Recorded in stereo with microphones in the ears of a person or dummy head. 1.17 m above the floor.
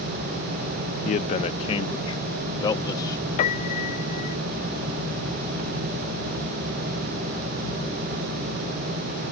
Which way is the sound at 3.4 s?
40° left (ahead or behind).